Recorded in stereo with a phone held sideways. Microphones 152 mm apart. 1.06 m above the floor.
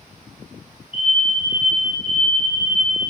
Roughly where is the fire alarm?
Left.